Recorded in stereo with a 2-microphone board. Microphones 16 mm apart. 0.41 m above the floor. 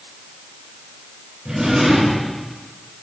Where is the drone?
I don't hear a drone.